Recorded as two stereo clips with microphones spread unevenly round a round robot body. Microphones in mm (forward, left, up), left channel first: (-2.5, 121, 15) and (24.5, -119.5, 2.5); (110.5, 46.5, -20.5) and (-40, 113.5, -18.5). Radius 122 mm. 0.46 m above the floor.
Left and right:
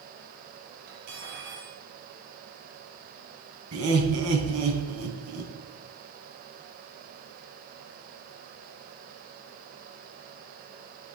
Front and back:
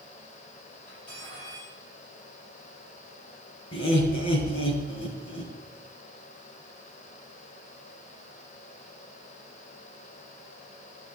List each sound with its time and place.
0.9 s cutlery clinking: 85° right, 6.5 m
3.7 s laughter: 60° right, 3.5 m